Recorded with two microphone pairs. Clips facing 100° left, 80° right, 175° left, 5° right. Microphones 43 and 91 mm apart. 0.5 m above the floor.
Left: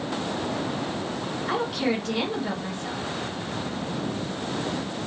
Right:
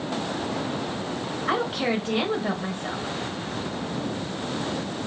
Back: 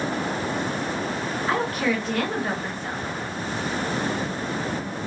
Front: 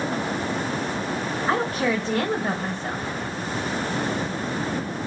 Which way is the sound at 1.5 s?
35° right.